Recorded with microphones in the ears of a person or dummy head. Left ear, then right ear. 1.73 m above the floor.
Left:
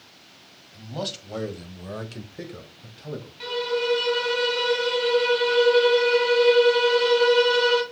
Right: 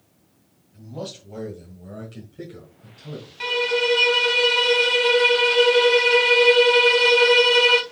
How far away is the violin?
About 0.9 m.